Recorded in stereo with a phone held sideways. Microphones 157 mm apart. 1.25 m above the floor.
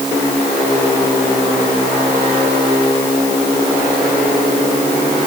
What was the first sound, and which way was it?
Only background noise.